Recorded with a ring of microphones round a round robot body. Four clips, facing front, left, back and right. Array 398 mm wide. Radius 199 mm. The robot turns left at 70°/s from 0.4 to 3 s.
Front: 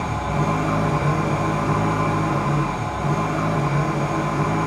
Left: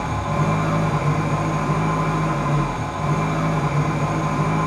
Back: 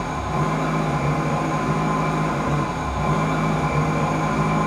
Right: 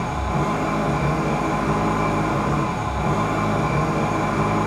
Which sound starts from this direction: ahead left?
An engine running, at 0.0 s.